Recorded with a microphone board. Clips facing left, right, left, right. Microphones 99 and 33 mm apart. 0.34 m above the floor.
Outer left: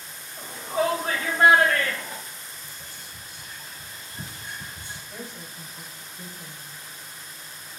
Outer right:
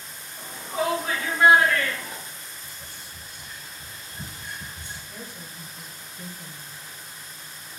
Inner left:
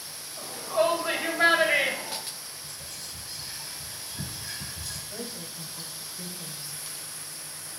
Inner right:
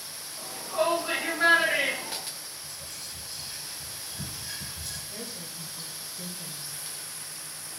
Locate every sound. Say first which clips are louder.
0.4 s a shout: outer left 3 dB, inner left 3 dB; 30° left (ahead or behind), 1.1 m; by 2.2 s 40° left (ahead or behind), 1.4 m
2.6 s whispering: even, even; 55° left (ahead or behind), 2.5 m
5.1 s a woman speaking: outer left 1 dB, inner left 2 dB; 25° left (ahead or behind), 1.5 m